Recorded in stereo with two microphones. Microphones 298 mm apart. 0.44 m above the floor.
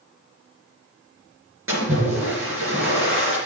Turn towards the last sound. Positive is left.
turn(degrees=-45)  # may be behind; listen again after turning